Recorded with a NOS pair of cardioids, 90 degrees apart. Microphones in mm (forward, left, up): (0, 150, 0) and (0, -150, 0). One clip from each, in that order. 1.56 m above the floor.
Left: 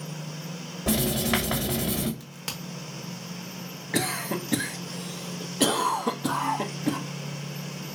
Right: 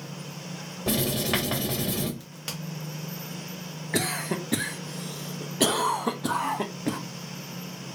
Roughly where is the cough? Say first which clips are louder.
Even; ahead.